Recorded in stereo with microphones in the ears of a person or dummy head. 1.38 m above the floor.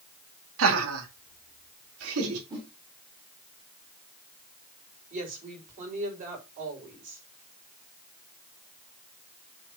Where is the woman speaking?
40° right (ahead or behind), 5 m.